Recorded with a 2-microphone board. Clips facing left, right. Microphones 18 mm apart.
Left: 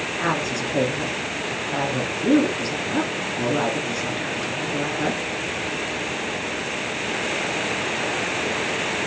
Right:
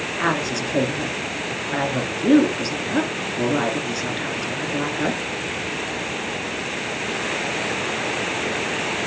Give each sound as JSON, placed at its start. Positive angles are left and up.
{"t": 0.2, "sound": "a woman speaking", "side_deg": -25, "distance_m": 1.8}